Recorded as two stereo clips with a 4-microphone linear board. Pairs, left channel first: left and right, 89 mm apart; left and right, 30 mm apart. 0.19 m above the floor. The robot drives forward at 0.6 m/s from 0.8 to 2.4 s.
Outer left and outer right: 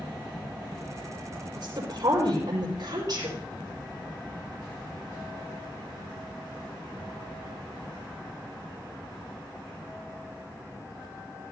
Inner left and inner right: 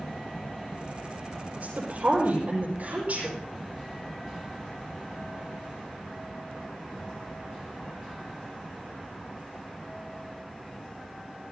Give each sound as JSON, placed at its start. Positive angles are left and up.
{"t": 1.6, "sound": "a woman speaking", "side_deg": -55, "distance_m": 5.0}